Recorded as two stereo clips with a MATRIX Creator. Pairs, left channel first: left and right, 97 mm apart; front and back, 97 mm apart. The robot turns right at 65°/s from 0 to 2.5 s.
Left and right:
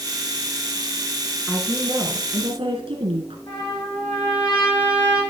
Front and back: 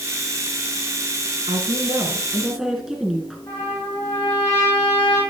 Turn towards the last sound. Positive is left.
turn(degrees=60)